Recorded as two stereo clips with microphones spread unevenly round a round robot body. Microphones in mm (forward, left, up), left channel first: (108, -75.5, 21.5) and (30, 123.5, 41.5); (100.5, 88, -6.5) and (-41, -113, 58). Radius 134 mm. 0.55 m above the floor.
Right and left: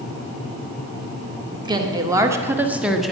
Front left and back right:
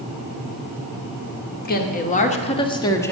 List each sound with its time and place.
1.6 s a woman speaking: 40° left, 1.8 m; by 3.1 s 10° left, 1.2 m